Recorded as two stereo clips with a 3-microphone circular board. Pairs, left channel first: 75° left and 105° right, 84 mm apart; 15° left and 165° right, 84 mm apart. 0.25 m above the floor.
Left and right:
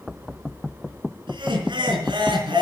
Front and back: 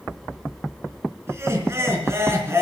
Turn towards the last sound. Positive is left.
turn(degrees=-110)